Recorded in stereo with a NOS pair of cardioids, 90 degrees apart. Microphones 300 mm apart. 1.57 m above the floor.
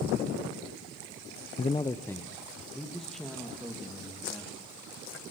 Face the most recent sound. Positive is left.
turn(degrees=0)